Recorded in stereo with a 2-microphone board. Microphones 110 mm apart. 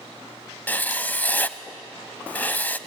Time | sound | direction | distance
0.7 | writing | 15° left (ahead or behind) | 0.7 m